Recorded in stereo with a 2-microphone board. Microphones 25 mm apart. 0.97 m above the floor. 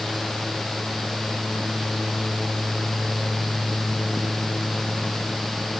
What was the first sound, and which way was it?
Only background noise.